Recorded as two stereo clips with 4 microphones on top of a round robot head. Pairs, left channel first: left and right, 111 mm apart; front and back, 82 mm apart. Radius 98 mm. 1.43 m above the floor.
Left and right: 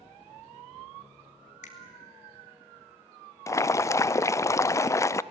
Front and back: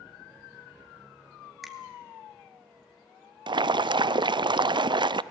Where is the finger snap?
90° left, 2.5 m.